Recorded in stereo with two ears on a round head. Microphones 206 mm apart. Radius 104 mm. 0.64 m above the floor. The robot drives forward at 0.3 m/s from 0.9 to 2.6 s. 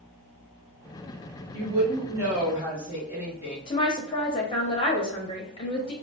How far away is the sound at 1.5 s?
About 1.1 m.